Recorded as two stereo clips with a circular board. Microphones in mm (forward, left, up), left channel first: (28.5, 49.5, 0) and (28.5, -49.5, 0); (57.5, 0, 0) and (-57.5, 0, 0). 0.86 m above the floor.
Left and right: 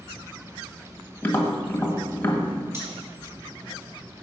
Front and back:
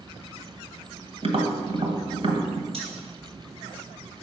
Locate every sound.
1.2 s tapping: 165° left, 1.3 m
2.7 s cutlery clinking: 150° right, 3 m